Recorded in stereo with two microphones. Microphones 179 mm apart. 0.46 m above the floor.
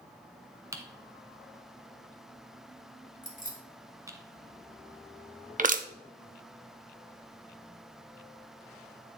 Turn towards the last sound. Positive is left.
turn(degrees=-50)  # may be behind; listen again after turning